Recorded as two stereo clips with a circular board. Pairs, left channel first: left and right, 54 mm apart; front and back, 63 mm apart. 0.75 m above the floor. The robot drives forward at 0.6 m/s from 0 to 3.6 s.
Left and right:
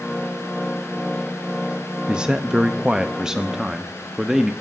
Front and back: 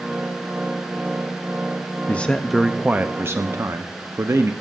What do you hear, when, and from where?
2.1 s a man speaking: 30° right, 0.6 m; by 4.5 s 165° right, 0.8 m